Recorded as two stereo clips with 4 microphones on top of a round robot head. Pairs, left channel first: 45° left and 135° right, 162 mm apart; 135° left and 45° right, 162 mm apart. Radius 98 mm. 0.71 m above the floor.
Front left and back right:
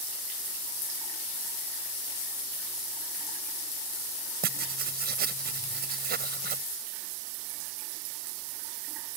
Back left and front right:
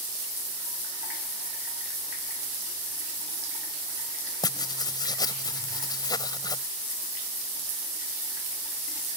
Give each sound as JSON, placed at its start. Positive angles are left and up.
{"t": 4.4, "sound": "writing", "azimuth_deg": -160}